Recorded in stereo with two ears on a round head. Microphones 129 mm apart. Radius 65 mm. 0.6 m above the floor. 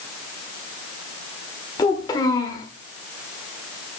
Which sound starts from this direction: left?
A child speaking, at 1.8 s.